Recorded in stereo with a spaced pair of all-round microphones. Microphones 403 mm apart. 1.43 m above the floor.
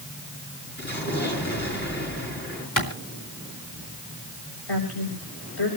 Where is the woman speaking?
70° left (ahead or behind), 7.5 m.